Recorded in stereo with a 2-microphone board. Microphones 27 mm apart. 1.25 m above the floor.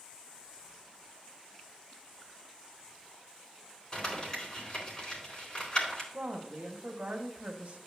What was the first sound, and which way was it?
Crumpling, 35° left (ahead or behind).